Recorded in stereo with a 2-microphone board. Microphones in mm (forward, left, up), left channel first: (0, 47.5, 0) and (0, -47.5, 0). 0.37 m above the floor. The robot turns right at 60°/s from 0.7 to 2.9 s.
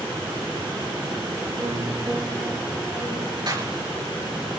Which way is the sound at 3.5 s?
45° right (ahead or behind).